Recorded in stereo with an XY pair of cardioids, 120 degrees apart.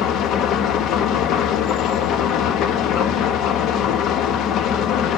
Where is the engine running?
70° left, 1.1 m.